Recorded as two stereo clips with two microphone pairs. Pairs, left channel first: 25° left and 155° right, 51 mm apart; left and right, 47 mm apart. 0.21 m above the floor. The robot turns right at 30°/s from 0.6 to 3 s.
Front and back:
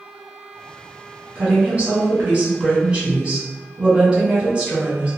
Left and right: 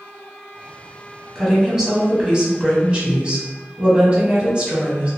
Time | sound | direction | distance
1.4 | a woman speaking | 170° right | 1.1 m